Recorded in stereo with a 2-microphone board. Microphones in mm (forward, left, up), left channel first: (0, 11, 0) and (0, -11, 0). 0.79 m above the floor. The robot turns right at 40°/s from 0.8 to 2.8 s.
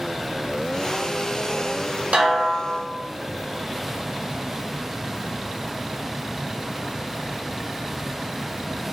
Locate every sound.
2.1 s a snare drum: 70° right (ahead or behind), 1.0 m; by 2.8 s 75° right (ahead or behind), 1.0 m